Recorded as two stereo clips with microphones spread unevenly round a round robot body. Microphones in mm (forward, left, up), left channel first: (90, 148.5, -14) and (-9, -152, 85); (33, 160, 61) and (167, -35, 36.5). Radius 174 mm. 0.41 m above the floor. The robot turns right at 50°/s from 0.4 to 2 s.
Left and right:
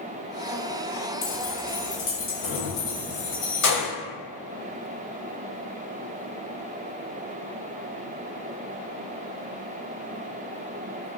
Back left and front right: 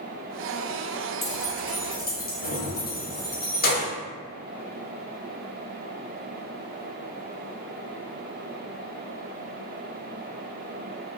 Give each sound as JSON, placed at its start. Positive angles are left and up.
{"t": 1.2, "sound": "keys jangling", "azimuth_deg": 30, "distance_m": 1.4}